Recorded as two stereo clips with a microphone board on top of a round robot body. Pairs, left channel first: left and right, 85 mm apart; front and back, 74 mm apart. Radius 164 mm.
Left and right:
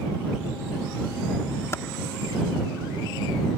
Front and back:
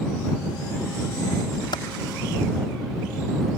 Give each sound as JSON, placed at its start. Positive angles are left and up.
{"t": 1.7, "sound": "typing on a keyboard", "azimuth_deg": 30}